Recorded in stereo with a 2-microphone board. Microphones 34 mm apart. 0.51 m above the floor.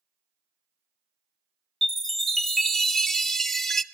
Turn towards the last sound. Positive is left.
turn(degrees=10)  # may be behind; listen again after turning